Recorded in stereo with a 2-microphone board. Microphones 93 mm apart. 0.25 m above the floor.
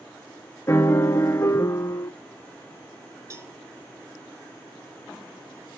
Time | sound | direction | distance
0.7 | a piano | 30° left (ahead or behind) | 0.6 m
3.3 | a cowbell | 35° right (ahead or behind) | 0.9 m